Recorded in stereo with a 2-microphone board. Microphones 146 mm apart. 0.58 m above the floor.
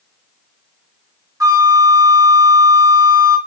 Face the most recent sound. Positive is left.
turn(degrees=-25)  # may be behind; listen again after turning